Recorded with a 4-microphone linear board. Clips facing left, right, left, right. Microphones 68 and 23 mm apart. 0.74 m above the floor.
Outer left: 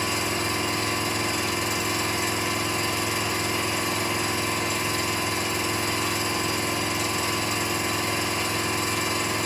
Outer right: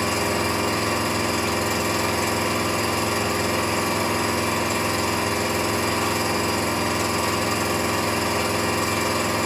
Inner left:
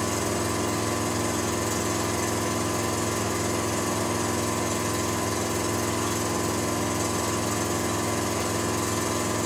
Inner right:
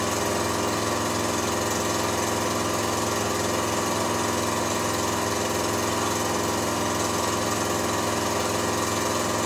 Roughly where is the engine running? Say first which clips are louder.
Outer right 4 dB, inner right 2 dB; right.